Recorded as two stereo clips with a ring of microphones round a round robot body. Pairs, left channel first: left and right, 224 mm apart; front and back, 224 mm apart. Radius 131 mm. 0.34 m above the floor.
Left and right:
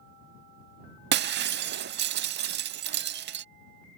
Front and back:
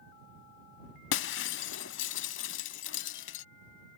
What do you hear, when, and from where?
1.1 s breaking glass: 45° right